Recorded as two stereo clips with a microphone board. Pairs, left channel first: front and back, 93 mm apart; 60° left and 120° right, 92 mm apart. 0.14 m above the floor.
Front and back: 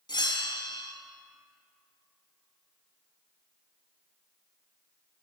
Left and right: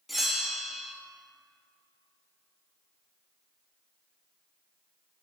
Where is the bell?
30° right, 0.9 m.